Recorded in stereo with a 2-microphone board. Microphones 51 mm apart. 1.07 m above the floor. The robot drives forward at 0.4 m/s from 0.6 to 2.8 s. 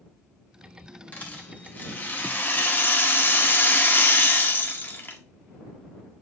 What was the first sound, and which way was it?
A rattle, 30° left (ahead or behind).